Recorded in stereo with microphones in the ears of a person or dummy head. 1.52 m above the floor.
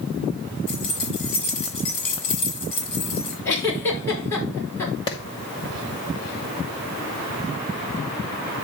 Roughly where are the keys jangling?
Left.